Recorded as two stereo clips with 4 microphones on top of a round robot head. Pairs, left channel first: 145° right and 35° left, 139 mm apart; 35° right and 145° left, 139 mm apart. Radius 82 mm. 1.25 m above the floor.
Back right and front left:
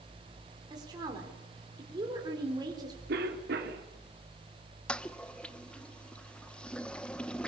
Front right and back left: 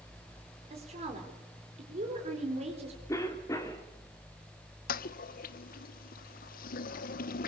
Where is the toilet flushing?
60° right, 0.8 m.